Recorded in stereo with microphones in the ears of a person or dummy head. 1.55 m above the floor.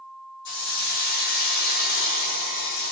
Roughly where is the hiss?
Left.